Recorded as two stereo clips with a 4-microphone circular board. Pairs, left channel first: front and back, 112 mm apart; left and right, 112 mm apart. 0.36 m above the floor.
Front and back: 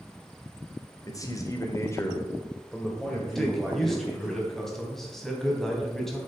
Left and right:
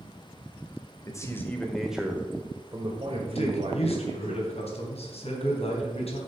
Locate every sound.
1.0 s a man speaking: 45° left, 1.6 m; by 4.3 s 95° right, 3 m
3.4 s a man speaking: 85° left, 3 m